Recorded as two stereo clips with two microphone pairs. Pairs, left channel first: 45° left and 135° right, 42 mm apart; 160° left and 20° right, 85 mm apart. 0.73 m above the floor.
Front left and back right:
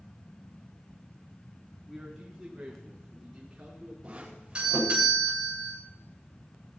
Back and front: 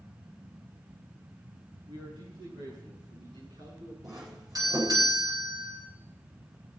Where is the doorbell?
65° right, 9 m.